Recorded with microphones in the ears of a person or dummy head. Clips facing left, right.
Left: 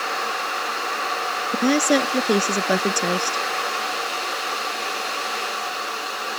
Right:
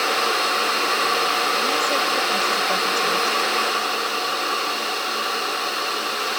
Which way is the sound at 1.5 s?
70° left (ahead or behind).